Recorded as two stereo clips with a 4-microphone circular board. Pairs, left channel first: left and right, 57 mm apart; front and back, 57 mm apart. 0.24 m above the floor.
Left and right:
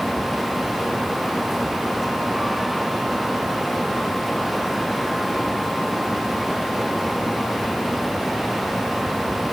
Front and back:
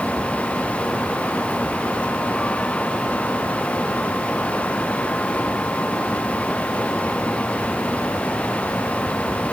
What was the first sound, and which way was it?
Only background noise.